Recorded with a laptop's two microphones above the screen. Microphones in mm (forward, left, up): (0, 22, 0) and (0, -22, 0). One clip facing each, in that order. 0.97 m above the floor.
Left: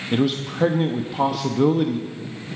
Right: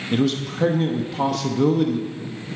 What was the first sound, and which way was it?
A man speaking, 15° left (ahead or behind).